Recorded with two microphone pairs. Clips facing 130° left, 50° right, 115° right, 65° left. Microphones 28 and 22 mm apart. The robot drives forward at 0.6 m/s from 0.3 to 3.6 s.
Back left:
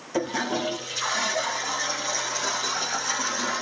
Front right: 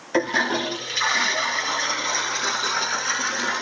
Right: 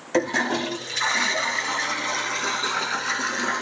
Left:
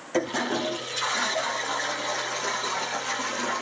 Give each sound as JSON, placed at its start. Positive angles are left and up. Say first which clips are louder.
{"t": 0.1, "sound": "a toilet flushing", "louder": "front right 5 dB, right 4 dB", "azimuth_deg": -70, "distance_m": 2.5}